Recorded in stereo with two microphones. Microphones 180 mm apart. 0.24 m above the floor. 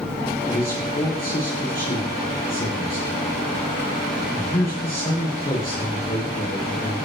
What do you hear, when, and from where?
0.5 s a man speaking: 55° left (ahead or behind), 7.5 m